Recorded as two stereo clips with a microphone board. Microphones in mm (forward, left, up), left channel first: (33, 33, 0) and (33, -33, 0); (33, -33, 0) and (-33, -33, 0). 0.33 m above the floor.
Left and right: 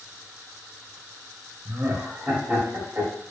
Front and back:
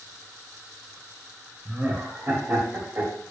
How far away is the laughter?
About 1.2 m.